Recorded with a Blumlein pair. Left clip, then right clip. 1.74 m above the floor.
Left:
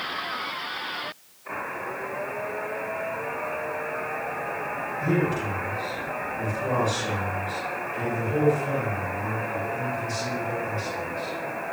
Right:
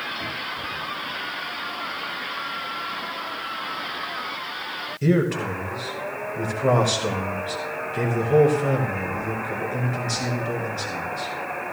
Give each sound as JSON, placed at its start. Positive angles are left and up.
{"t": 5.0, "sound": "a man speaking", "azimuth_deg": -60, "distance_m": 7.0}